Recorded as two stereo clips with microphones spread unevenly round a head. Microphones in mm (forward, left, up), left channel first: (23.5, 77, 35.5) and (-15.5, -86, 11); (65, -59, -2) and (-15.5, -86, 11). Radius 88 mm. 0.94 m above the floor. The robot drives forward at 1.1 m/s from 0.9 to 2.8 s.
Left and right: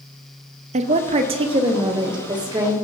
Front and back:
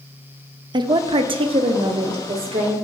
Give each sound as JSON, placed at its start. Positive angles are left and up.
{"t": 0.7, "sound": "a woman speaking", "azimuth_deg": -135, "distance_m": 0.8}